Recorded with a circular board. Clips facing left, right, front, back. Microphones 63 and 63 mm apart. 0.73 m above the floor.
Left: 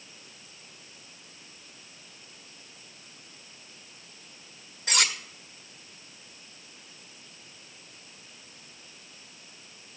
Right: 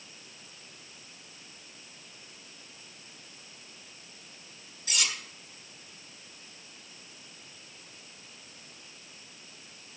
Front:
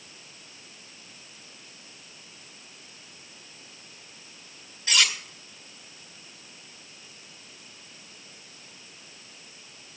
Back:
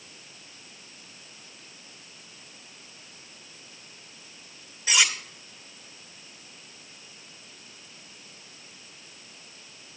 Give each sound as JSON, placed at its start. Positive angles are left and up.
{"t": 4.9, "sound": "cutlery clinking", "azimuth_deg": 105, "distance_m": 1.3}